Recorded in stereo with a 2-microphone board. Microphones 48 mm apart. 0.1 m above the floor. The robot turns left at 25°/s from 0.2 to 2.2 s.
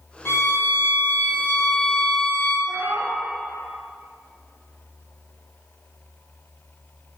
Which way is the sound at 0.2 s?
70° left.